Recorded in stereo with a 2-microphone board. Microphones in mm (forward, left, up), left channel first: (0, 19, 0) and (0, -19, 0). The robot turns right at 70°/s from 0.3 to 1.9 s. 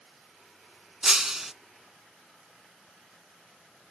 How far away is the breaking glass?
About 0.7 m.